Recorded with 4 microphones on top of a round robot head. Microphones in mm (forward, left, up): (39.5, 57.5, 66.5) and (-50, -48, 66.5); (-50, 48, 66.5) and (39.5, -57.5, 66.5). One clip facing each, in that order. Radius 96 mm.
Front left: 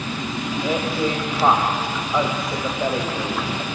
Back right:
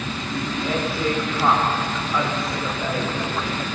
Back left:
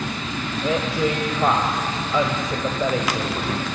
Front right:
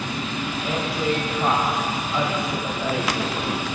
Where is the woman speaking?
120° left, 2.5 m.